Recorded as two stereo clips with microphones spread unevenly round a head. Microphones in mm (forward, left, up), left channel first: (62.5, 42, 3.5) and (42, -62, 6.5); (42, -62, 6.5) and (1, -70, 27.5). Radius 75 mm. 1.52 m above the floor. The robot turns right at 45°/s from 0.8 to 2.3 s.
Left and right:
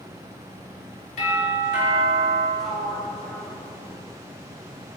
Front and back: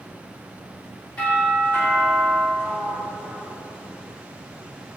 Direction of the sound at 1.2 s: 85° left.